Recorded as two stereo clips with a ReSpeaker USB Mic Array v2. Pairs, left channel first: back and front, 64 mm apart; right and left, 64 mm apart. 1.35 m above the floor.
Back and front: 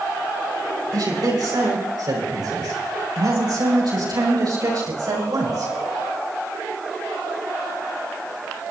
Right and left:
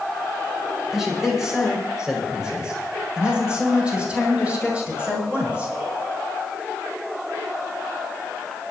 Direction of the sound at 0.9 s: 5° left.